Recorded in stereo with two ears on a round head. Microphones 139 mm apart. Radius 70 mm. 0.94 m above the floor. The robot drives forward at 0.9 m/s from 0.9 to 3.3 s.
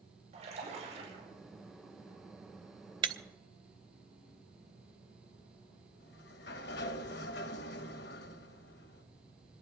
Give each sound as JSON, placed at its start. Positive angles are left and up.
{"t": 0.3, "sound": "a splash", "side_deg": -45, "distance_m": 9.5}
{"t": 3.0, "sound": "breaking glass", "side_deg": -30, "distance_m": 0.7}
{"t": 6.0, "sound": "a sliding door", "side_deg": 70, "distance_m": 0.9}